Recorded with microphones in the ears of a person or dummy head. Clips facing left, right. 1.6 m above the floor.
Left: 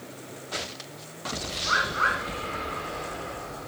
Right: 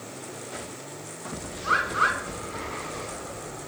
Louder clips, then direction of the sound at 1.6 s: Right 2 dB; 50° right (ahead or behind).